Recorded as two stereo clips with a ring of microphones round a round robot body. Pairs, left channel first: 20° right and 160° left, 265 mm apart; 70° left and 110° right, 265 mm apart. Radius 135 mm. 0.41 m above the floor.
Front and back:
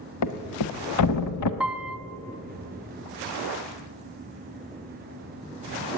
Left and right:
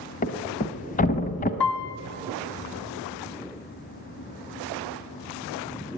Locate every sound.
0.2 s a thud: 5° left, 0.8 m
1.6 s a piano: 70° left, 0.9 m